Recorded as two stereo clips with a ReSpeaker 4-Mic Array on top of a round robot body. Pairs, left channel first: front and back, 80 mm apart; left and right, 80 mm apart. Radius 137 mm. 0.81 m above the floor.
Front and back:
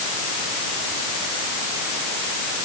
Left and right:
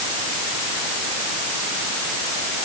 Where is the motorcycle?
I don't hear a motorcycle.